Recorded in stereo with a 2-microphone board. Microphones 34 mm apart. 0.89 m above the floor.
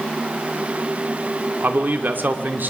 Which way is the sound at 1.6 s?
65° right (ahead or behind).